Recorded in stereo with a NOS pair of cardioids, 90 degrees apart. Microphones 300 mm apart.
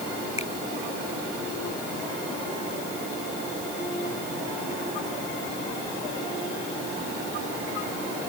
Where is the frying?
No frying in this recording.